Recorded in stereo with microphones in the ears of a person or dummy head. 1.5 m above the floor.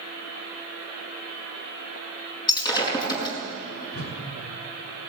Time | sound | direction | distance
2.5 | breaking glass | 25° left (ahead or behind) | 6 m
3.9 | a whoosh | 45° left (ahead or behind) | 2.5 m